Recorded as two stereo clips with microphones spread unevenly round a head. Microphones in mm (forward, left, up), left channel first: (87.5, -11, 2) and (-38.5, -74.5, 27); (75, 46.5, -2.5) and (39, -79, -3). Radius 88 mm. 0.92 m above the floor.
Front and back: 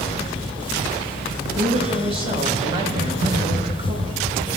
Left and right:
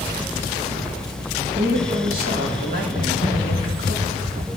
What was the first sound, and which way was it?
A woman speaking, 100° right.